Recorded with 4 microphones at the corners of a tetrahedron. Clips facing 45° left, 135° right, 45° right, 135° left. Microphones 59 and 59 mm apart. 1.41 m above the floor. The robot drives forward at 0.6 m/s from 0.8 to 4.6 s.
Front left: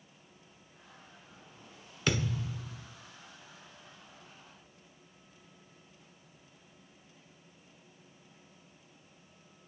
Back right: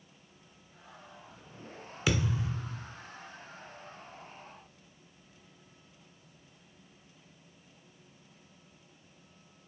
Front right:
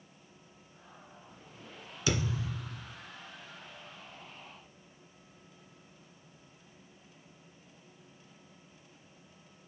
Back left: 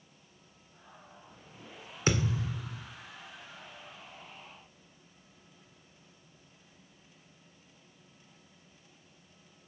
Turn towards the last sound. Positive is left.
turn(degrees=170)